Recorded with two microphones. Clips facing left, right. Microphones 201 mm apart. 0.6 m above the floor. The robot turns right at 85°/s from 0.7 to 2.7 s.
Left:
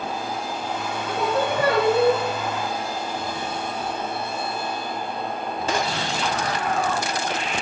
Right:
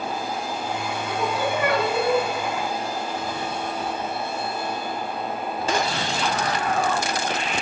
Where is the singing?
95° left, 3 m; by 2.2 s 165° right, 3 m.